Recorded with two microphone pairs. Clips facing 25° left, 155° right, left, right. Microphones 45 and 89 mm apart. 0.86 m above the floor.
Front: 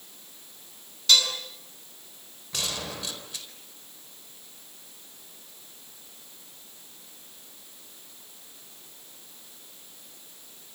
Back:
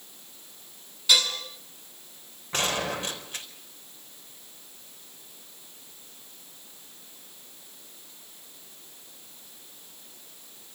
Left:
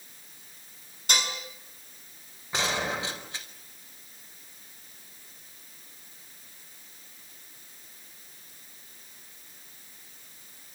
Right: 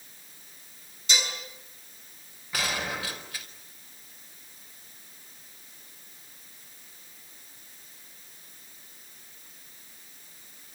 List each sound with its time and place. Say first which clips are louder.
1.1 s dishes clattering: front 1 dB, left 1 dB; 125° left, 5.5 m
2.5 s a gunshot: back 6 dB, left 2 dB; 155° left, 4 m